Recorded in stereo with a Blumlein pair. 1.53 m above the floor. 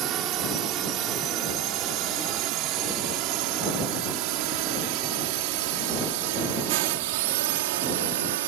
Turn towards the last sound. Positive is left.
turn(degrees=-55)